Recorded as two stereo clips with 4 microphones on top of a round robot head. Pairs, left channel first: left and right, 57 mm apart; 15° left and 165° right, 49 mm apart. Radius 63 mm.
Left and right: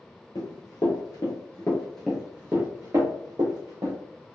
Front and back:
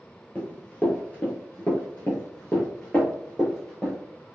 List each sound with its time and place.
0.3 s running footsteps: 80° left, 1.2 m; by 4.0 s 75° right, 1.3 m